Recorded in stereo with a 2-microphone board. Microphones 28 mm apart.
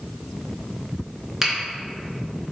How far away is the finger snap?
About 1.2 m.